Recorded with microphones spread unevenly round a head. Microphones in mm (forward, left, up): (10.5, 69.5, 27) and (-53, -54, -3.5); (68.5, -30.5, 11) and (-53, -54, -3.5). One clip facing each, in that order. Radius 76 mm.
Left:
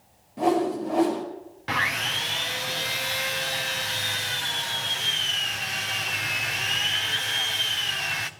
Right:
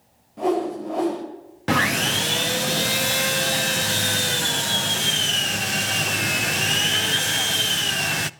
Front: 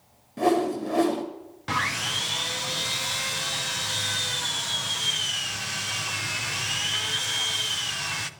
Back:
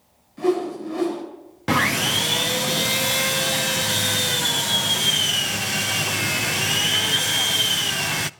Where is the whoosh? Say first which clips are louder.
Even, back 1 dB; 25° right, 3.5 m.